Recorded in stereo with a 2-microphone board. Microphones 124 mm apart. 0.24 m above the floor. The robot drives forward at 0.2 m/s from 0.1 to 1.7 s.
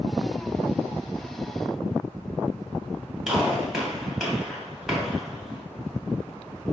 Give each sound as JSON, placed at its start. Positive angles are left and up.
{"t": 3.3, "sound": "a gunshot", "side_deg": -5, "distance_m": 1.5}